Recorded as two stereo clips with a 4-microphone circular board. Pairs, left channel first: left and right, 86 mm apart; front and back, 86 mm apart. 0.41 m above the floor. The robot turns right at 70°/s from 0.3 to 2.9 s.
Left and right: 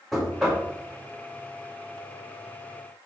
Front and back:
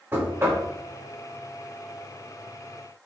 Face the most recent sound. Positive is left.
turn(degrees=-5)